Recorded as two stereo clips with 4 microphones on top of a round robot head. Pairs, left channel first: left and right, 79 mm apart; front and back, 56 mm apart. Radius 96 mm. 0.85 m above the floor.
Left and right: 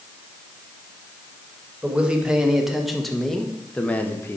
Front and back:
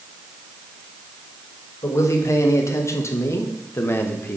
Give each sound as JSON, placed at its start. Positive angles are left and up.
{"t": 1.8, "sound": "a man speaking", "azimuth_deg": -15, "distance_m": 2.0}